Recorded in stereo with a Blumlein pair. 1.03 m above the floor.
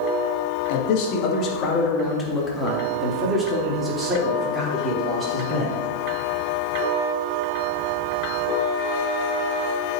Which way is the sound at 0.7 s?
45° left.